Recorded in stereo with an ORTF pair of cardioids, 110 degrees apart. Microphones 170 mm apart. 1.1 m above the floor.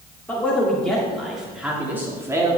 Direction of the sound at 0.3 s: 10° left.